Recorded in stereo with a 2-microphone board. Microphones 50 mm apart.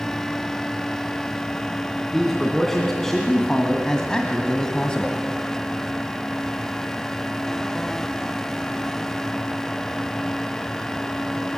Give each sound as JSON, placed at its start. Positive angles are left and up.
{"t": 2.1, "sound": "a man speaking", "side_deg": 5, "distance_m": 3.0}